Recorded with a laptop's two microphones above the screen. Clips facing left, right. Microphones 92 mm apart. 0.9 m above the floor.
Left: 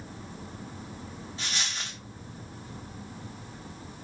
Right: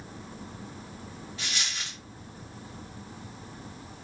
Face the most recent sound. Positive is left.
turn(degrees=30)  # may be behind; listen again after turning